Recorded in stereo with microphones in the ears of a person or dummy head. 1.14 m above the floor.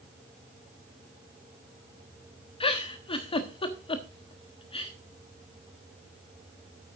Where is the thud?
I don't hear a thud.